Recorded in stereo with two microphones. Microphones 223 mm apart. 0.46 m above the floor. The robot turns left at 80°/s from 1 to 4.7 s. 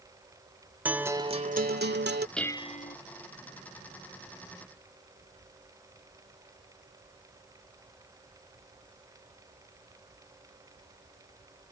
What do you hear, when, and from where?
0.8 s a guitar: 10° right; by 2.3 s 110° right
2.4 s dishes clattering: 175° left; by 3.0 s 130° left